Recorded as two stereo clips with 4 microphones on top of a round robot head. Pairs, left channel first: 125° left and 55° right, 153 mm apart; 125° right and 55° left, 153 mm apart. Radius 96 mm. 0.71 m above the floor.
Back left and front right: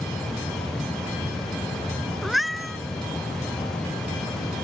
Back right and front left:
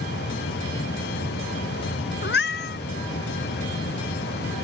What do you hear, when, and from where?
2.2 s a cat meowing: 145° right